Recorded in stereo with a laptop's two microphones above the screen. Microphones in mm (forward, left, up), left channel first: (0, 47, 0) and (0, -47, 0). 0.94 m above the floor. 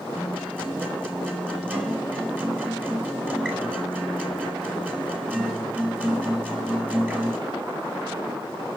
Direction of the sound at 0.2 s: 15° right (ahead or behind).